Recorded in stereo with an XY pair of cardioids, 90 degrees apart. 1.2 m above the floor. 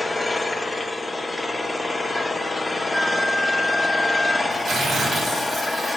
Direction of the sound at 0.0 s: 20° left.